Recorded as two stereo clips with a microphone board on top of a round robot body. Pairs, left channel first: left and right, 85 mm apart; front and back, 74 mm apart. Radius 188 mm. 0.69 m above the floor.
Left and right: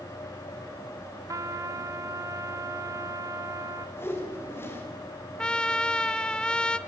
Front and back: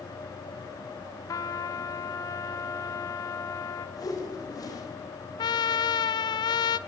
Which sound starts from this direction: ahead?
A trumpet, at 5.4 s.